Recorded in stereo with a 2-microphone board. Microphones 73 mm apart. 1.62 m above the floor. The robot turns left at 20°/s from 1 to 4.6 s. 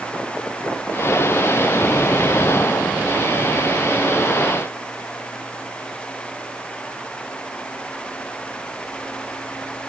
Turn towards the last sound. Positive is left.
No sound to turn to.